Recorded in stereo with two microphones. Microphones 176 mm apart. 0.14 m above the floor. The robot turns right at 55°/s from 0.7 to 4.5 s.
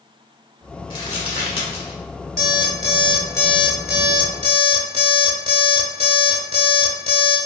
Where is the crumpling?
30° left (ahead or behind), 1.0 m.